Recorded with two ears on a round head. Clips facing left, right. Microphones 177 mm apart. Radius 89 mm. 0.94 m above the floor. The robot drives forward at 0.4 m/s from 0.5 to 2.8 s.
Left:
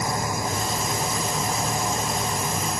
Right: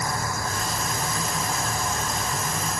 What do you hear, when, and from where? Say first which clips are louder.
0.0 s an engine running: left 3 dB; 15° left (ahead or behind)